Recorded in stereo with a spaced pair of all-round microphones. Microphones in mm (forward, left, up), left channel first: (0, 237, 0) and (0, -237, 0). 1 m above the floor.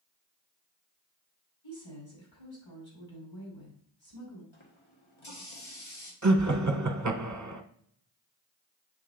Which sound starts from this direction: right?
Laughter, at 6.2 s.